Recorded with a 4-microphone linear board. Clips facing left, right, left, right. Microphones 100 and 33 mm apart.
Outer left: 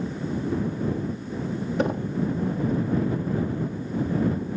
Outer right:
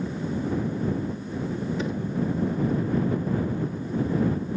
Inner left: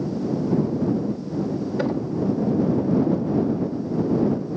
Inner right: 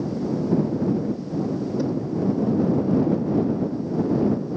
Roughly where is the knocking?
Left.